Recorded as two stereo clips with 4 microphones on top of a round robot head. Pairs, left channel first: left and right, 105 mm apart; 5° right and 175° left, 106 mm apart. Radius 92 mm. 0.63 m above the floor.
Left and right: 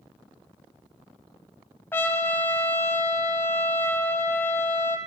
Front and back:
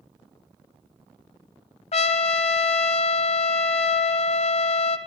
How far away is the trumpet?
About 0.9 m.